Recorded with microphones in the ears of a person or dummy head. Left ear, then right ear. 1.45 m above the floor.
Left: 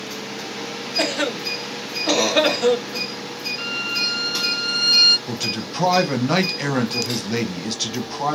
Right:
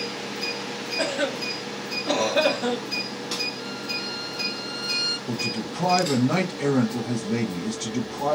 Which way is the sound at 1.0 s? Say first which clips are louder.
Left 4 dB; 80° left.